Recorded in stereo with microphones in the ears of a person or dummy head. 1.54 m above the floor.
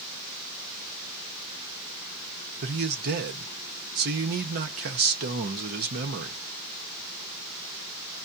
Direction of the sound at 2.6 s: 45° right (ahead or behind).